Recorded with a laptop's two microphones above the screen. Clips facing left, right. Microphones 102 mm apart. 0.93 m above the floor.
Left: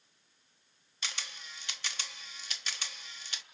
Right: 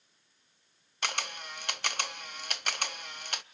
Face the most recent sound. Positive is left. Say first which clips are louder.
# right 9 dB
turn(degrees=-55)  # may be behind; listen again after turning